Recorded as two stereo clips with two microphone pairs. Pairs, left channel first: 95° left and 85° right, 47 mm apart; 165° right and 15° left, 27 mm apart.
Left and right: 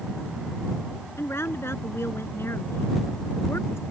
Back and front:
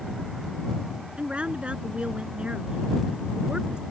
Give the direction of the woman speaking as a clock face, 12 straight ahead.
10 o'clock.